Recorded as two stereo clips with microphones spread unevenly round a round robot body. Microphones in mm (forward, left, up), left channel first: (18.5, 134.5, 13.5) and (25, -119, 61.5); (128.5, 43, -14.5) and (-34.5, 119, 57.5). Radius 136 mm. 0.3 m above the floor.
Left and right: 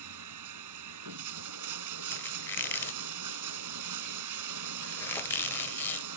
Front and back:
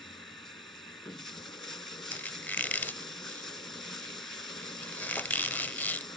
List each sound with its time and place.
0.0 s running water: 110° right
2.1 s a squeak: 25° left